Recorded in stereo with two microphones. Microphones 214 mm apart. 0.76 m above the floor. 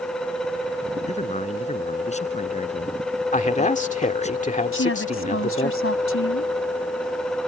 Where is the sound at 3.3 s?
35° left (ahead or behind).